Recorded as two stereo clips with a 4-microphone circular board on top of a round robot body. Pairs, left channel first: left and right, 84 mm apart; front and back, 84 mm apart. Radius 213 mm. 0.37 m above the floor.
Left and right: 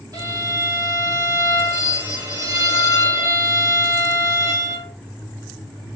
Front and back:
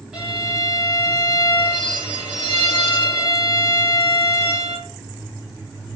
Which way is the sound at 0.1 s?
100° right.